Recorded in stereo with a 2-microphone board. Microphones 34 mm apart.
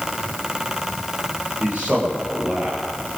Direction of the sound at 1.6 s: 40° right (ahead or behind).